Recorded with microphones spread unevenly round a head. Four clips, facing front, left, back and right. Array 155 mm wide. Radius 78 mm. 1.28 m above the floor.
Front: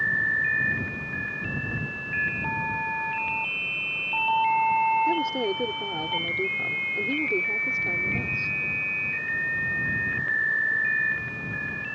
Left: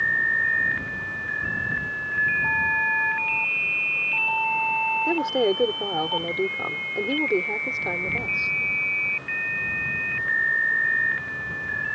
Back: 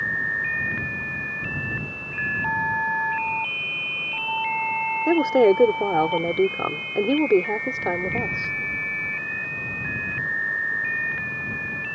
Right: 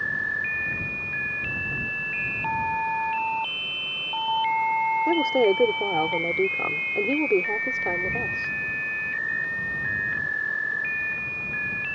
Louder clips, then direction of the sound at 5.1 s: Right 1 dB, back 9 dB; 170° right.